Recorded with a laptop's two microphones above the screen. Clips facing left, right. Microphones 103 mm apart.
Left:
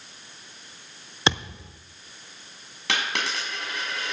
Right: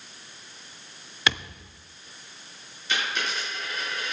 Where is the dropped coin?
80° left, 4.5 m.